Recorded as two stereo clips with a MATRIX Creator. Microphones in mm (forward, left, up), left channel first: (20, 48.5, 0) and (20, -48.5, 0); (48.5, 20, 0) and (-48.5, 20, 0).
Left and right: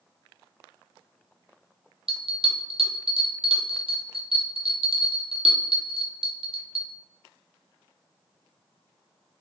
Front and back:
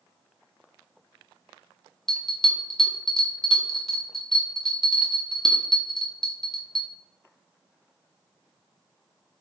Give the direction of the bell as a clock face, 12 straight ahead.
3 o'clock.